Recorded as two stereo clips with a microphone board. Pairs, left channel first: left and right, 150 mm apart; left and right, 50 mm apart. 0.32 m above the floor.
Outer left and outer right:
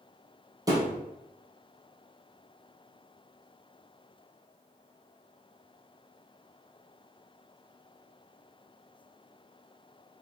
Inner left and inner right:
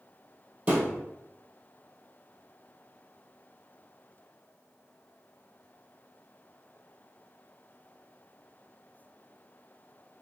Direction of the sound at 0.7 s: 25° right (ahead or behind).